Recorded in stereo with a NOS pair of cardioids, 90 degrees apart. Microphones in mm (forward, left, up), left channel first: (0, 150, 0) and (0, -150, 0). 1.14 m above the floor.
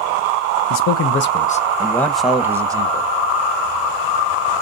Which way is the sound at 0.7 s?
65° left.